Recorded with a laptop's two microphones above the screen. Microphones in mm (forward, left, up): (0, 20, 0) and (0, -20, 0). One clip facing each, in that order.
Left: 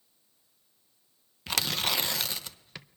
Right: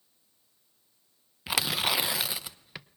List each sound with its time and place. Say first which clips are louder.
1.5 s tearing paper: right 2 dB; 10° right (ahead or behind), 0.7 m